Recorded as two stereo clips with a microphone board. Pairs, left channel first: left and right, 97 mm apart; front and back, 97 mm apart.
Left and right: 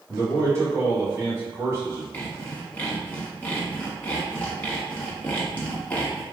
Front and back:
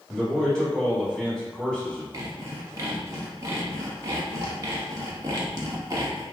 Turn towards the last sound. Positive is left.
turn(degrees=155)